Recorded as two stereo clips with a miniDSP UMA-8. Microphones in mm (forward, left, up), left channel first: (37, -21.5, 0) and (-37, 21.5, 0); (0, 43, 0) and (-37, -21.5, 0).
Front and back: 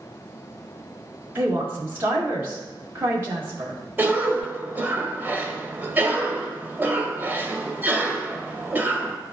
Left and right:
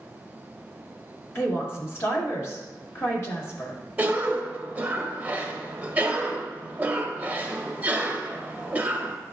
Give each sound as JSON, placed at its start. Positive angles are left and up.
{"t": 1.4, "sound": "a woman speaking", "azimuth_deg": 95, "distance_m": 1.7}
{"t": 4.0, "sound": "a cough", "azimuth_deg": -165, "distance_m": 1.0}